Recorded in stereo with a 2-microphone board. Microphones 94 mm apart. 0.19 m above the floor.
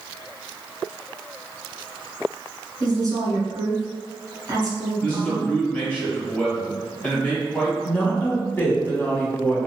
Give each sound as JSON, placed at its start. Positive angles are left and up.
{"t": 2.8, "sound": "a woman speaking", "side_deg": -40, "distance_m": 1.6}
{"t": 5.0, "sound": "a man speaking", "side_deg": 15, "distance_m": 1.5}
{"t": 7.8, "sound": "a woman speaking", "side_deg": 20, "distance_m": 1.1}